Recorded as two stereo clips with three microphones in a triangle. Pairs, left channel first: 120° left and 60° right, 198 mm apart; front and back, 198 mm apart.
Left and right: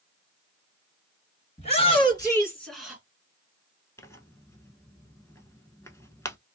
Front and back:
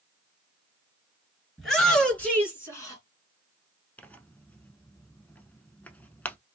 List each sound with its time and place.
1.6 s a shout: 90° left, 2 m; by 3.0 s 5° left, 1.7 m
4.0 s tearing paper: 70° left, 0.5 m